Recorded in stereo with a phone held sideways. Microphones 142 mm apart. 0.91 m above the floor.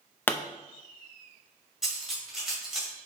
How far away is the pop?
About 0.5 m.